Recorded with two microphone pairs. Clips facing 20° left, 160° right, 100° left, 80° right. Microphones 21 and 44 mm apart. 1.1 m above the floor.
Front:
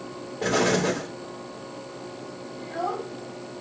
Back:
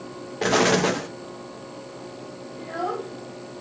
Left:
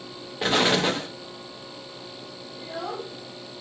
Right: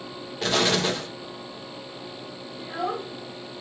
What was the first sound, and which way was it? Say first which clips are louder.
An explosion: back 3 dB, left 2 dB; 170° left.